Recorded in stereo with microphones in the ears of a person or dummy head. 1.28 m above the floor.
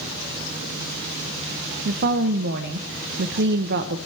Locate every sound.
1.9 s a woman speaking: 60° right (ahead or behind), 1.0 m